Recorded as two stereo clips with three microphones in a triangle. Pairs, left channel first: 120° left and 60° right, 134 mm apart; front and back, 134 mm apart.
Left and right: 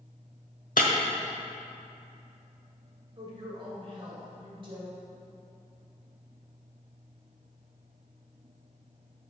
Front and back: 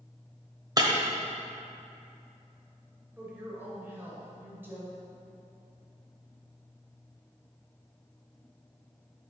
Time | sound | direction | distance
0.8 | breaking glass | 120° left | 1.1 m
3.2 | a woman speaking | 105° right | 2.5 m